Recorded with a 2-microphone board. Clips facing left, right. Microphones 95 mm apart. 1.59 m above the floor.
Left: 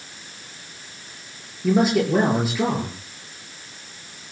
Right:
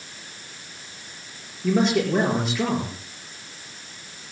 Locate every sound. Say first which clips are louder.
1.6 s a man speaking: left 2 dB; 5° left (ahead or behind), 5.5 m